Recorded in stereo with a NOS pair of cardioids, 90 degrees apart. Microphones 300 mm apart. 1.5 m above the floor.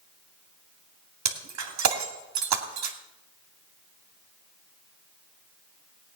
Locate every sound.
1.2 s breaking glass: 70° right, 2.5 m